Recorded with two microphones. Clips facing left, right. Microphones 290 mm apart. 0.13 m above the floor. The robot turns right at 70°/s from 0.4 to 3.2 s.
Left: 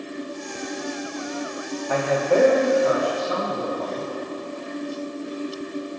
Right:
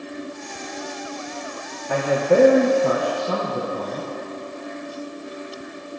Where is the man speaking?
170° right, 2.5 m; by 4.1 s 75° right, 2.5 m.